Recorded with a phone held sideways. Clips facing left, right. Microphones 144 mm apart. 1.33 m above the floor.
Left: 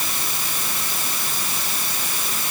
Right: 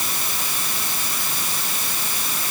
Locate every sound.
Only background noise.